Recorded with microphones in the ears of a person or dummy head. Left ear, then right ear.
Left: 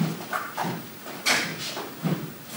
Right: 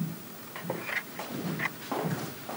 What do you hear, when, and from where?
Only background noise.